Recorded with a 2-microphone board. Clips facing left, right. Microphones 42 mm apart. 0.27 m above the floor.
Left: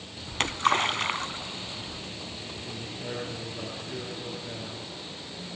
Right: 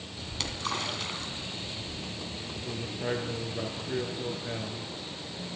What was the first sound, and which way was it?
A splash, 50° left (ahead or behind).